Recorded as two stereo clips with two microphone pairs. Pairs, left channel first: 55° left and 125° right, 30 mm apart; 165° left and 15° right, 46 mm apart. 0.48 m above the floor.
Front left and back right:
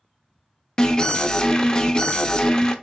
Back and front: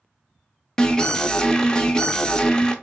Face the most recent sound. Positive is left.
turn(degrees=95)